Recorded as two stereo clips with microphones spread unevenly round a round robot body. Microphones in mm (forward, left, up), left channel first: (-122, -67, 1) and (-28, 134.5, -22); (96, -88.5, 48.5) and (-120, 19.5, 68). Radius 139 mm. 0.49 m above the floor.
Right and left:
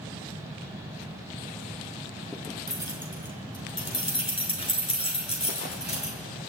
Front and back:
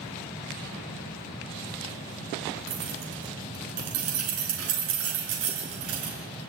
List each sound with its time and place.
2.7 s keys jangling: 170° left, 5 m; by 6.2 s 175° right, 6.5 m